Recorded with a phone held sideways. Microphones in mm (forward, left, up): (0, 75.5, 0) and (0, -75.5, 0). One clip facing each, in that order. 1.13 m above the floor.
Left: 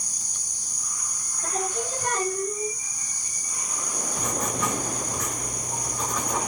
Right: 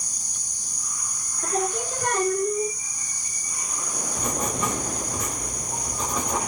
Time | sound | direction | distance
1.4 | singing | 65° right (ahead or behind) | 0.8 m
4.2 | writing | 30° right (ahead or behind) | 1.3 m